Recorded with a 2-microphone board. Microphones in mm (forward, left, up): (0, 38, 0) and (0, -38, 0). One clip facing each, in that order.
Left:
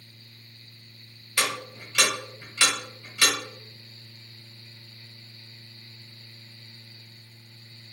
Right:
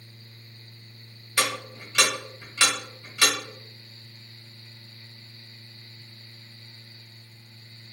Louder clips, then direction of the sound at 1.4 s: Right 1 dB; 20° right (ahead or behind).